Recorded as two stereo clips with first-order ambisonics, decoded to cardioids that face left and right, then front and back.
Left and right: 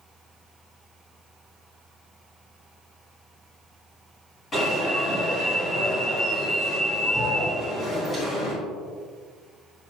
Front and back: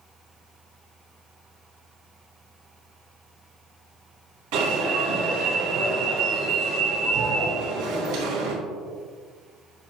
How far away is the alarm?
About 4 m.